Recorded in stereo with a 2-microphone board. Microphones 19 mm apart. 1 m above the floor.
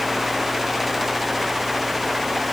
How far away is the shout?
No shout in this recording.